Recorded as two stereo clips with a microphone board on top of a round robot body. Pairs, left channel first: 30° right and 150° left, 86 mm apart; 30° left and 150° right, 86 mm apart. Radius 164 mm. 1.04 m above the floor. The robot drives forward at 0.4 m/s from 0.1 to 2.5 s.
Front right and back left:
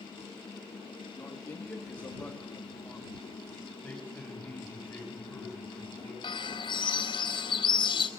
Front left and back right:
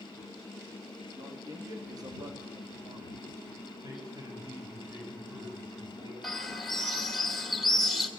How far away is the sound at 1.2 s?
About 3 m.